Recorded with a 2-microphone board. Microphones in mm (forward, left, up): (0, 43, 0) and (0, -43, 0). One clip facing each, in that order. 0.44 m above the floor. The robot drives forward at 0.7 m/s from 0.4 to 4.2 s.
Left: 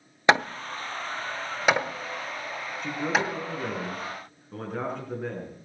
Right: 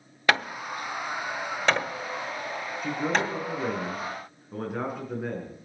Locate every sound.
0.3 s hammering: 20° left (ahead or behind), 0.6 m; by 3.3 s 5° left (ahead or behind), 2 m
2.8 s a man speaking: 5° right (ahead or behind), 3.5 m